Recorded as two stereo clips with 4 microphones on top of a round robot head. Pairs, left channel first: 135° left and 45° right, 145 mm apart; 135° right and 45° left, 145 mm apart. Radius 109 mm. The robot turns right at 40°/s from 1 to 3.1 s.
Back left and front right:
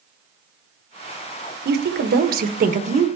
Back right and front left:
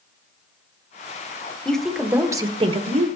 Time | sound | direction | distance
1.6 | a woman speaking | 55° right | 1.3 m